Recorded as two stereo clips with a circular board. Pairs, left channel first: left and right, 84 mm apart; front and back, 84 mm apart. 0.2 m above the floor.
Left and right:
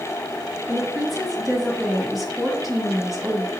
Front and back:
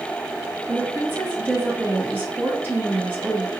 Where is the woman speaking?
175° right, 1.1 m.